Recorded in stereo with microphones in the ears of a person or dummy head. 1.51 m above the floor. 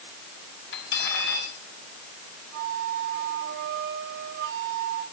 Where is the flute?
55° right (ahead or behind), 3 m.